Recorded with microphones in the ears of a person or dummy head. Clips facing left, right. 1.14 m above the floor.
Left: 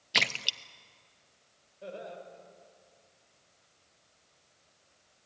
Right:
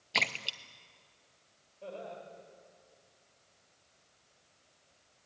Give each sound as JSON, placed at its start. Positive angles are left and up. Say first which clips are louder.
{"t": 0.1, "sound": "a splash", "louder": "left 1 dB", "side_deg": 20, "distance_m": 0.6}
{"t": 1.8, "sound": "laughter", "louder": "left 1 dB", "side_deg": 10, "distance_m": 5.5}